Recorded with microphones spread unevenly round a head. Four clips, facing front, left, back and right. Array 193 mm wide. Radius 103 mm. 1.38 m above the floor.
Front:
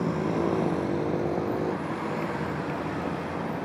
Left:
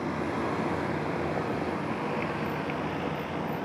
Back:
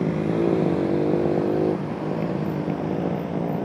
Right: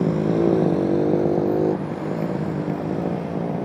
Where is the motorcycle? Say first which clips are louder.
Right 11 dB, back 4 dB; 110° right; by 3.7 s 135° right.